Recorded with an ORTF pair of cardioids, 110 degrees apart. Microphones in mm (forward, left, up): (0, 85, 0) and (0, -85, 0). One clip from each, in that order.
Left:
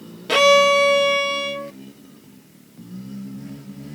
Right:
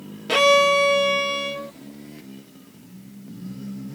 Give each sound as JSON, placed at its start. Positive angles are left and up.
{"t": 0.3, "sound": "a violin", "azimuth_deg": 10}